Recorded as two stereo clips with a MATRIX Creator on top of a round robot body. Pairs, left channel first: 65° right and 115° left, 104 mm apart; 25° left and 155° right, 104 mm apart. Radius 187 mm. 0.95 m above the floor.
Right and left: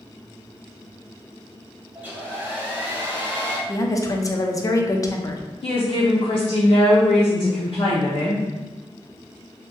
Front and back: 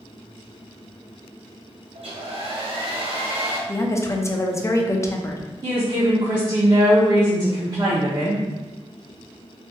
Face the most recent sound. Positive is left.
turn(degrees=-105)